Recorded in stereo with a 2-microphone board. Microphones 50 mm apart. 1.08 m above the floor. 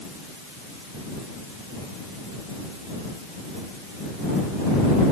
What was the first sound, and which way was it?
Only background noise.